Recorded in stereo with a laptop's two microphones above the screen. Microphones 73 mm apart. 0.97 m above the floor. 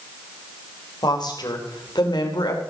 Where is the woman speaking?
70° left (ahead or behind), 3.5 m; by 2.6 s 80° left, 2.5 m.